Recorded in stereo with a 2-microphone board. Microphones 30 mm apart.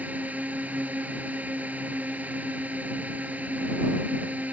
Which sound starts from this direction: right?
A drone, at 0.0 s.